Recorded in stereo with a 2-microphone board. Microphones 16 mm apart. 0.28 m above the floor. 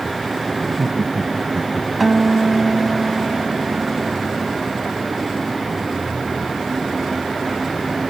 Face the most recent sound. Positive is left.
turn(degrees=0)  # may be behind; listen again after turning